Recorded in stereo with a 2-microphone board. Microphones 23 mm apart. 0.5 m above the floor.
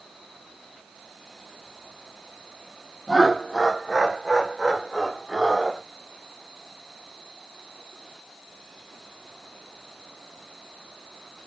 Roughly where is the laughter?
Centre.